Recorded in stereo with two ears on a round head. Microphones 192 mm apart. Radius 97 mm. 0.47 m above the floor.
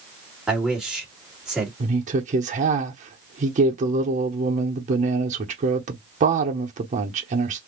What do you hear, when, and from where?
0.5 s a man speaking: 5° right (ahead or behind), 1.7 m
1.8 s a woman speaking: 35° right (ahead or behind), 0.9 m